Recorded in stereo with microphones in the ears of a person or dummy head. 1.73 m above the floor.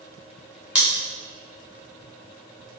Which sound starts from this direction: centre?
Scissors, at 0.8 s.